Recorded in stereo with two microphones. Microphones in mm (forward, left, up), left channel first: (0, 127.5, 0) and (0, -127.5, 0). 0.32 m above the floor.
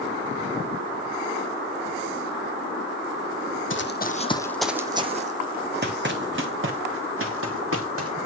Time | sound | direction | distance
3.7 | running footsteps | 50° left (ahead or behind) | 0.9 m